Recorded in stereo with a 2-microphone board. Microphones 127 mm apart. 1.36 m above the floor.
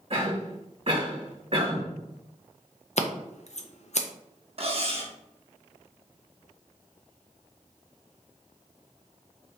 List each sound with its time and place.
0.1 s a cough: 55° right (ahead or behind), 2.5 m
3.0 s scissors: 60° left (ahead or behind), 0.6 m
4.6 s cutlery clinking: 50° right (ahead or behind), 0.8 m